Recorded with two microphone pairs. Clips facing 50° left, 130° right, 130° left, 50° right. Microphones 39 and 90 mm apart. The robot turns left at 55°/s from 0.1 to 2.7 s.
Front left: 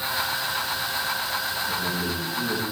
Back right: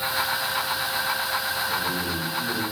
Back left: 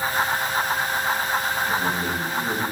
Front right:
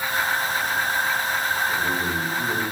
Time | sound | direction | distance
1.7 | a man speaking | 105° left | 4.5 m